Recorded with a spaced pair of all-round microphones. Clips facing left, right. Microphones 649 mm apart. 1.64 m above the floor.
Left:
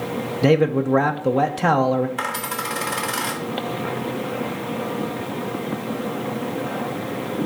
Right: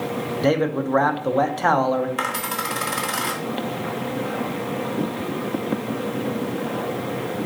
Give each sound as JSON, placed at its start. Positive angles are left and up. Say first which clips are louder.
{"t": 0.4, "sound": "a man speaking", "louder": "left 4 dB", "side_deg": 55, "distance_m": 0.6}
{"t": 2.2, "sound": "a dropped coin", "louder": "right 1 dB", "side_deg": 20, "distance_m": 1.0}